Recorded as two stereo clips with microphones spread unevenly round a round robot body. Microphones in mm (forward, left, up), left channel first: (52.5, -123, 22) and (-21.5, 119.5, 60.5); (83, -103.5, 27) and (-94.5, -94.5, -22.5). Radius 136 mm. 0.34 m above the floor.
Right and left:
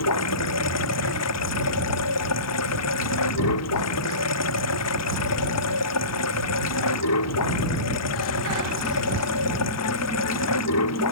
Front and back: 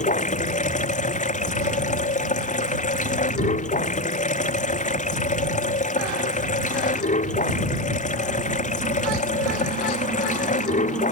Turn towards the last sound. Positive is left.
turn(degrees=-50)